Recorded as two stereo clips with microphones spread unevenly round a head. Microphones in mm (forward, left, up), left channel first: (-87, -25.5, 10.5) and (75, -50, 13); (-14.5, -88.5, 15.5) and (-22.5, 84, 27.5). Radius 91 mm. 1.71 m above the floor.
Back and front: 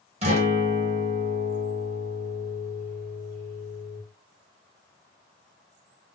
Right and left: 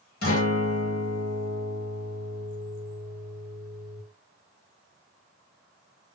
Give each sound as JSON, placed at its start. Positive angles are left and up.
{"t": 0.2, "sound": "a guitar", "azimuth_deg": -50, "distance_m": 1.2}